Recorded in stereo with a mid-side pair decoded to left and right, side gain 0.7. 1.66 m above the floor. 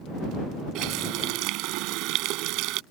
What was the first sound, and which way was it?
A running tap, 65° right.